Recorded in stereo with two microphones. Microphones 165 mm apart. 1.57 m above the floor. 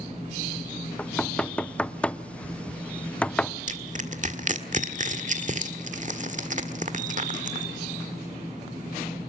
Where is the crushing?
50° right (ahead or behind), 1.6 m.